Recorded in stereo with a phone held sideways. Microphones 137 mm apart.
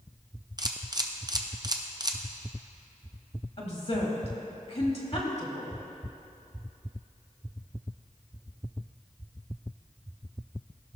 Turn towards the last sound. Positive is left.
turn(degrees=50)  # may be behind; listen again after turning